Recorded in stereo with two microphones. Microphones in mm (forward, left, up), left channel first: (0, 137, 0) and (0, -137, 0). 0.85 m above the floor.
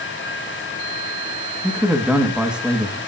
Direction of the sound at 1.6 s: 5° right (ahead or behind).